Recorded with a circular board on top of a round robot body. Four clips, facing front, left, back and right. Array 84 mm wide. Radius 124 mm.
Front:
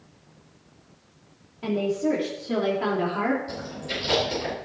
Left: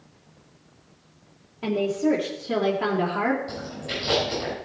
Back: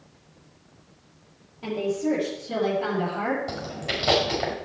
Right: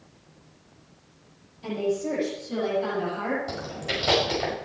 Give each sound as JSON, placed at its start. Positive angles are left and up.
{"t": 1.6, "sound": "a woman speaking", "azimuth_deg": 80, "distance_m": 3.0}
{"t": 3.5, "sound": "chewing", "azimuth_deg": -155, "distance_m": 6.0}